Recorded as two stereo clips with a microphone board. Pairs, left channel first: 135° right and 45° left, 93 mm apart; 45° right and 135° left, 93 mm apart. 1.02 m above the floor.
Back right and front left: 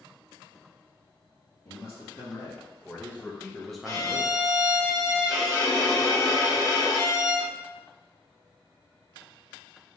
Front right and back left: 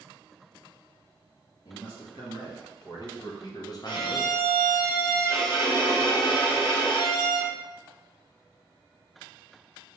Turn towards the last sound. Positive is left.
turn(degrees=-80)